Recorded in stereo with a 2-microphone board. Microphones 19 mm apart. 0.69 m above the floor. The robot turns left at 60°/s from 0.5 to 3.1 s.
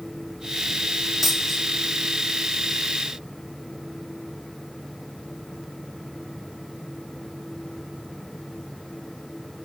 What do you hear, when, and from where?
1.2 s a dropped coin: 20° right (ahead or behind), 1.6 m; by 1.6 s 5° left (ahead or behind), 1.6 m